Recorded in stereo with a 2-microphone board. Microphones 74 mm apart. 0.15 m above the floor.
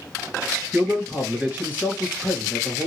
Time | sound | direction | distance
0.7 | a man speaking | 20° right (ahead or behind) | 3 m